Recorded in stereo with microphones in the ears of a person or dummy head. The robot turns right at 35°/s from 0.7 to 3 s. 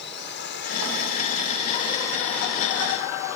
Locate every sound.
0.0 s a drone: 115° left; by 3.4 s 165° right